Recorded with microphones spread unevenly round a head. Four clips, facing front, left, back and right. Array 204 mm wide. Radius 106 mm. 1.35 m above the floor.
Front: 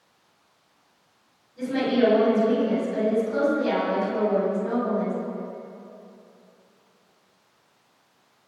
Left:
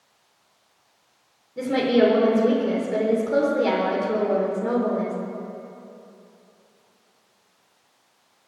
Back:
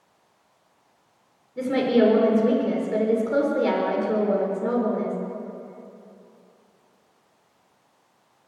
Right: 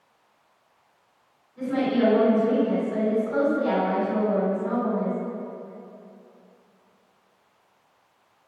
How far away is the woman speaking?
About 4.5 m.